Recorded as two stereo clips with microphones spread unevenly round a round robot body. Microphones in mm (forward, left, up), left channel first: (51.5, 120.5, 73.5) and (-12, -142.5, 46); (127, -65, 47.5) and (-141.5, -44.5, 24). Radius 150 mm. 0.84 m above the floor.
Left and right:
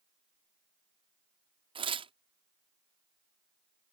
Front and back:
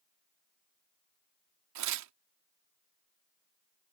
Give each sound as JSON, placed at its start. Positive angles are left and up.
{"t": 1.8, "sound": "tearing paper", "azimuth_deg": -175}